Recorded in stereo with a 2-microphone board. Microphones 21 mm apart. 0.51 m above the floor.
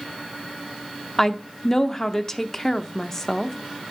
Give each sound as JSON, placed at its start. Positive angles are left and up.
{"t": 1.2, "sound": "a woman speaking", "side_deg": 25, "distance_m": 0.7}